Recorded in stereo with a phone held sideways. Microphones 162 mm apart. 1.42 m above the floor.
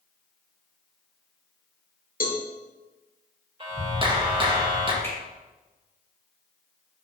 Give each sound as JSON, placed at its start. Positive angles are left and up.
{"t": 2.2, "sound": "a cowbell", "side_deg": 65, "distance_m": 1.2}
{"t": 3.6, "sound": "a clap", "side_deg": -35, "distance_m": 1.5}
{"t": 5.0, "sound": "a finger snap", "side_deg": 15, "distance_m": 3.5}